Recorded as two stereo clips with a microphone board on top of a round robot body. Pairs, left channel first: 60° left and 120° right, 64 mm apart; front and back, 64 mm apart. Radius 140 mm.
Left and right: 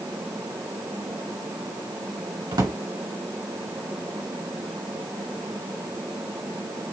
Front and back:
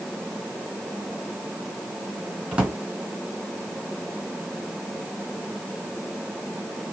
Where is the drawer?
105° right, 2 m.